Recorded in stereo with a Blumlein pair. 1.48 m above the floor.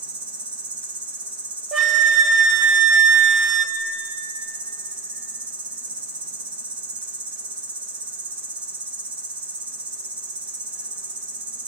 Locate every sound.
0.0 s an insect: 70° right, 2 m
1.7 s a flute: 20° right, 0.6 m